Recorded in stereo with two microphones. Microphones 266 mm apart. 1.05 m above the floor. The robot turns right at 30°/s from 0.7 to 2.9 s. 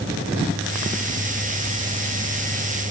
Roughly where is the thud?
I don't hear a thud.